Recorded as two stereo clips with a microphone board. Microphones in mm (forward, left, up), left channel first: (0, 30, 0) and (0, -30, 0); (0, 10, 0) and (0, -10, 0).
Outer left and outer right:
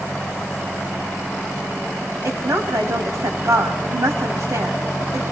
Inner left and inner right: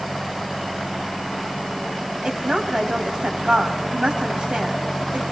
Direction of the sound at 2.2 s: 70° right (ahead or behind).